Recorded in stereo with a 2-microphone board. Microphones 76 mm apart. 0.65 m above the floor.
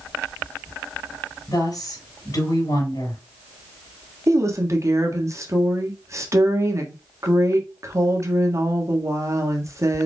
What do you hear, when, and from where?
1.5 s a woman speaking: 60° left (ahead or behind), 3 m
4.3 s a woman speaking: 45° right (ahead or behind), 1.3 m